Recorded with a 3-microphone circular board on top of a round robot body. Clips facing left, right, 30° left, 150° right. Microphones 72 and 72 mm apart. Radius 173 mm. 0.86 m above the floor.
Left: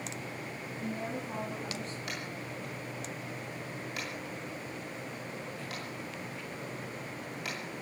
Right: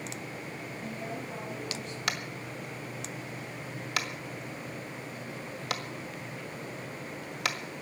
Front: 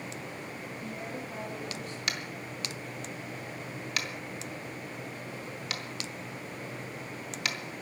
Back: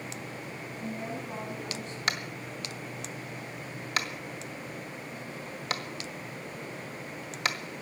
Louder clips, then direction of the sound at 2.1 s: Right 3 dB, back 5 dB; 95° right.